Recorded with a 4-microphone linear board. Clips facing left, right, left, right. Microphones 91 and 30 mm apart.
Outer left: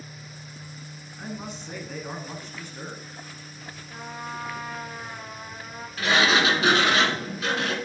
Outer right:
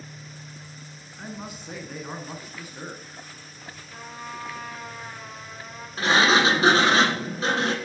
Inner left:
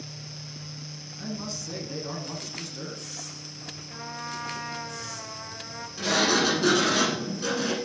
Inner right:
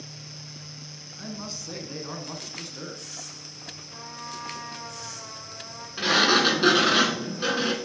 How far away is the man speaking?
About 1.3 m.